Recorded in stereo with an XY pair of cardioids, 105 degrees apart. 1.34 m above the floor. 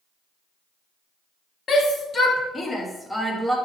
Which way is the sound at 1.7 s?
55° left.